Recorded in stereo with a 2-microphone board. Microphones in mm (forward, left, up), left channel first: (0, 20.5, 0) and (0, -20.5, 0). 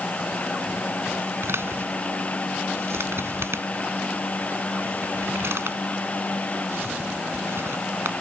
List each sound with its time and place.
1.4 s a man speaking: 75° right (ahead or behind)